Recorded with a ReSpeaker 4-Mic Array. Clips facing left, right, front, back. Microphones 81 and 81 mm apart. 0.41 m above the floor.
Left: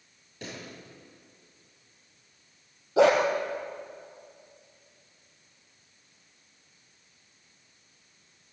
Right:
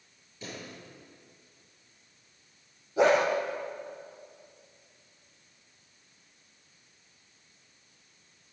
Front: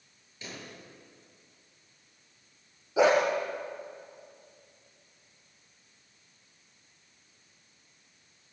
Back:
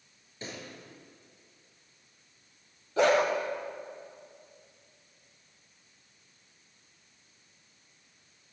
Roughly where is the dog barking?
Left.